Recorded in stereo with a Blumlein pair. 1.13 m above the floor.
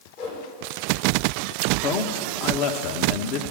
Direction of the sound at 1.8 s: 40° left.